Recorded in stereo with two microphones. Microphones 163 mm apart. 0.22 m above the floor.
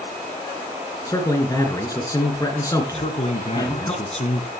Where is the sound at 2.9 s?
45° left (ahead or behind), 2.5 m.